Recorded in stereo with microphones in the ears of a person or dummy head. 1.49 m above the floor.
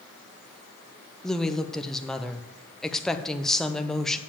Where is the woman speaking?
5° left (ahead or behind), 0.7 m.